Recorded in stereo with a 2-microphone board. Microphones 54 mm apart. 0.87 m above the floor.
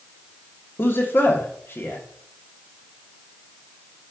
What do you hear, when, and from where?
0.8 s a man speaking: 40° left (ahead or behind), 1.4 m